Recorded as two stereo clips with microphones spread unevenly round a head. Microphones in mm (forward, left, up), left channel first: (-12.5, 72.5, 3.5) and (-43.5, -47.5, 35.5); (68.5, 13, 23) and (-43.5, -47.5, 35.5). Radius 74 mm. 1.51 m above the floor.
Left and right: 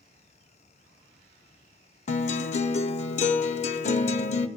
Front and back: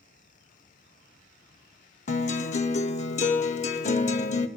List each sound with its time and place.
2.1 s a guitar: 55° left, 0.8 m